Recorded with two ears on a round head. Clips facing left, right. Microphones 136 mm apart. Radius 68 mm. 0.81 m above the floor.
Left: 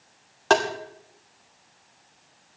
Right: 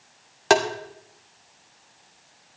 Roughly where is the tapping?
Centre.